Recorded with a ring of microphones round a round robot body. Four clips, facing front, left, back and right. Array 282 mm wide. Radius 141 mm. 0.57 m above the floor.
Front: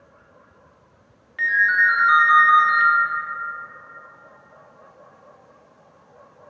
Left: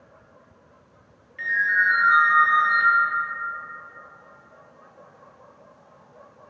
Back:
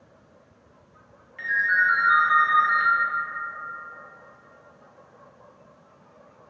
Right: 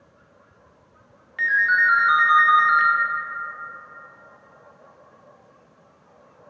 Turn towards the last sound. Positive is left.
turn(degrees=-60)